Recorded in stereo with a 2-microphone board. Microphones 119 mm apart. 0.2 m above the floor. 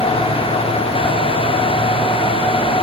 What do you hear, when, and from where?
Only background noise.